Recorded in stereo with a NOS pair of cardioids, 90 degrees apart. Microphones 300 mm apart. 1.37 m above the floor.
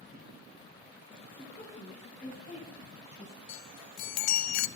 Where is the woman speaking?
40° left, 6.5 m; by 3.4 s 20° left, 8 m.